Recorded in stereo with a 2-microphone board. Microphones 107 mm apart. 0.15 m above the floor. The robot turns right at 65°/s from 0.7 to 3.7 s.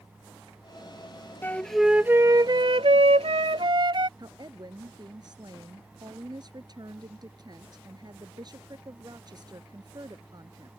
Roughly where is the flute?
Behind.